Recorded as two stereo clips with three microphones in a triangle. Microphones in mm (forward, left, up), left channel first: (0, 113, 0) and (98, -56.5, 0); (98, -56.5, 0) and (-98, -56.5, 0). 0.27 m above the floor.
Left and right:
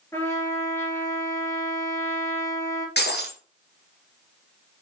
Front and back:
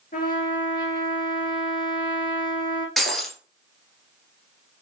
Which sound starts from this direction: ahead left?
A trumpet, at 0.1 s.